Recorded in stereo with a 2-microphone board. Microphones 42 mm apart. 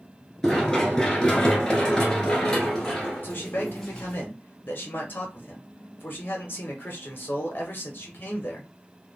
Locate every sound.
0.4 s running footsteps: 10° left (ahead or behind), 1.5 m; by 4.2 s 15° left (ahead or behind), 2 m
3.2 s a man speaking: 50° left (ahead or behind), 1.6 m